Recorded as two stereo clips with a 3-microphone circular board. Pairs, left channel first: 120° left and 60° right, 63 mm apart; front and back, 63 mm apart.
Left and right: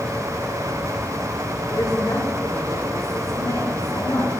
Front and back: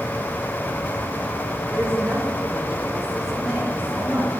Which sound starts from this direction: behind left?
A woman speaking, at 1.7 s.